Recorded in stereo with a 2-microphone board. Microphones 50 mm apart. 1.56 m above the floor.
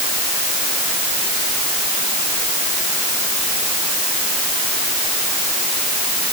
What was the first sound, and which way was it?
Only background noise.